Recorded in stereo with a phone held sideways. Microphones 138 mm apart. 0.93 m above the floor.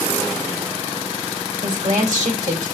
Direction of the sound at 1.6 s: 65° right (ahead or behind).